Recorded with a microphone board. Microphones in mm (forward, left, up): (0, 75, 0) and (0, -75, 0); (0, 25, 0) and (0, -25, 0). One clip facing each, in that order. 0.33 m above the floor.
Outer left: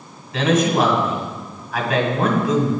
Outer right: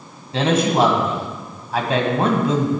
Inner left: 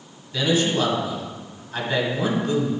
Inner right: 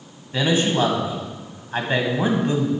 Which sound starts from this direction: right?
A man speaking, at 0.3 s.